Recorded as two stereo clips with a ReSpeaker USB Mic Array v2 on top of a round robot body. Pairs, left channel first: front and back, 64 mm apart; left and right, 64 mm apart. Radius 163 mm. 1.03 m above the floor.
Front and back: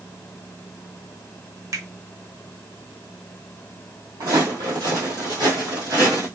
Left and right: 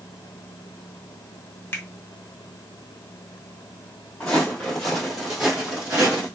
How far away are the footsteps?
About 1.6 m.